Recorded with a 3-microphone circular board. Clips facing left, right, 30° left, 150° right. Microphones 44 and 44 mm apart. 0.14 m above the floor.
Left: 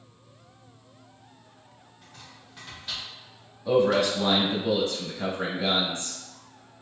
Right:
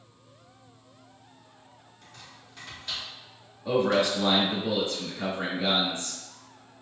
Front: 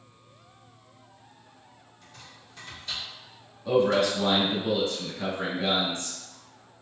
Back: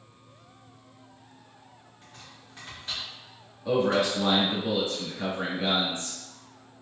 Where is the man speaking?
105° right, 1.5 m.